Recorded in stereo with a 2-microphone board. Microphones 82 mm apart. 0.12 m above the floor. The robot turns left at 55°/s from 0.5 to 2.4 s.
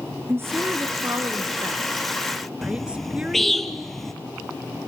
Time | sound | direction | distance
0.3 | a woman speaking | 30° right (ahead or behind) | 1.4 m
2.6 | a bird | centre (ahead or behind) | 1.2 m